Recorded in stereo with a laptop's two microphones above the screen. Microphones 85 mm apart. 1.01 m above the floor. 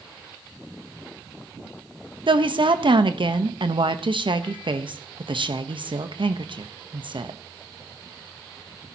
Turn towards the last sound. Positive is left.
turn(degrees=-70)  # may be behind; listen again after turning